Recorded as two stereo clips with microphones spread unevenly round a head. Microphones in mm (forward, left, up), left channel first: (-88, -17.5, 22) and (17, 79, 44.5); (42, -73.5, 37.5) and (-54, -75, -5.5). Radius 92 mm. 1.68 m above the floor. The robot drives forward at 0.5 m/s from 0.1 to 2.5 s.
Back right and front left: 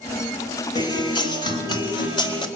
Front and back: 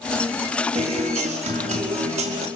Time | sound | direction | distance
0.8 | a guitar | 160° left | 3.5 m